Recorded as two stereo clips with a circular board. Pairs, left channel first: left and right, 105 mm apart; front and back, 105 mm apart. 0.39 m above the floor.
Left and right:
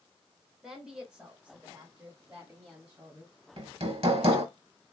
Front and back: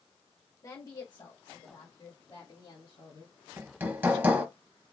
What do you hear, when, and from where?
0.6 s a woman speaking: 10° right, 1.0 m; by 3.3 s 15° right, 2 m
3.6 s hammering: 110° right, 0.8 m